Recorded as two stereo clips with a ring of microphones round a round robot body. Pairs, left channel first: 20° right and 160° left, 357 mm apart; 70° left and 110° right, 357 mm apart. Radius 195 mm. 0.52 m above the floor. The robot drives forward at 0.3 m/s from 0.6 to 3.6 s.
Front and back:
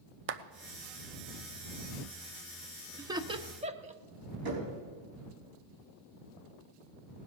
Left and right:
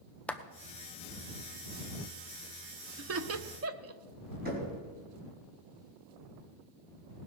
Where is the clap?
150° left, 0.7 m.